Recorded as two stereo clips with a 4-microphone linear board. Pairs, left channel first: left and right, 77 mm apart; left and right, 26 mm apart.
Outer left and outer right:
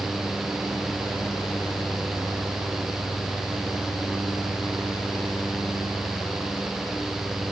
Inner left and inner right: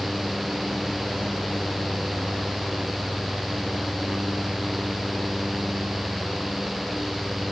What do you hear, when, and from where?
Only background noise.